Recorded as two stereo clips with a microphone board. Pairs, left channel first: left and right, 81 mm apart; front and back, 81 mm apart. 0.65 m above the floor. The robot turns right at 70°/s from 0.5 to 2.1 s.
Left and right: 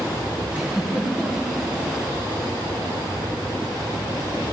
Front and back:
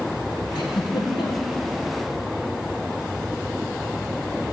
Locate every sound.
0.6 s a giggle: 20° right, 5 m; by 1.6 s 50° left, 5 m